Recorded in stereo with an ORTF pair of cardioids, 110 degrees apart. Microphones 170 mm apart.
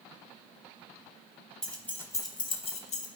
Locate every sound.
1.6 s keys jangling: 5° left, 1.3 m; by 3.1 s 50° left, 1.1 m